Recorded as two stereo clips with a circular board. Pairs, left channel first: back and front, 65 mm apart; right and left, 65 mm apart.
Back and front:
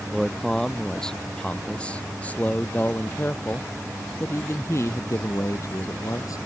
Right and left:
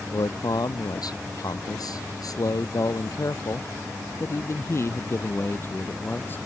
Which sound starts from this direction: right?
A man speaking, at 0.1 s.